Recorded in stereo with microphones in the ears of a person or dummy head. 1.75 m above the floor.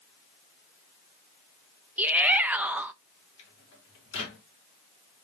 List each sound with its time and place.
2.0 s a shout: 10° right (ahead or behind), 0.6 m
3.4 s a microwave: 80° left, 3.5 m